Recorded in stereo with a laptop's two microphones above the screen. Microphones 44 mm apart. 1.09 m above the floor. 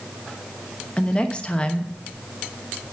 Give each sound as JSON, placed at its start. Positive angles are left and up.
{"t": 1.0, "sound": "a woman speaking", "side_deg": 25, "distance_m": 0.9}